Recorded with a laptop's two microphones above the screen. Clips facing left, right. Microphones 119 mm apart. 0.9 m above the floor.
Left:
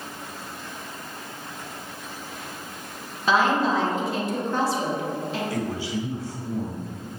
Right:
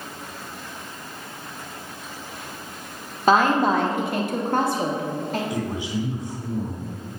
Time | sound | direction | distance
3.3 | a woman speaking | 50° right (ahead or behind) | 1.3 m
5.5 | a man speaking | 15° right (ahead or behind) | 2.5 m